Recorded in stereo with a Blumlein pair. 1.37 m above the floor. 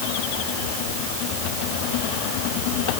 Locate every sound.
Only background noise.